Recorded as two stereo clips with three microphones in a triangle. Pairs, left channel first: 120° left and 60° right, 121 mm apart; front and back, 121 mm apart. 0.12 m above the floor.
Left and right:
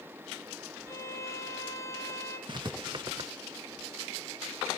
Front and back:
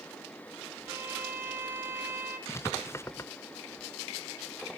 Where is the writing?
55° right, 0.5 m.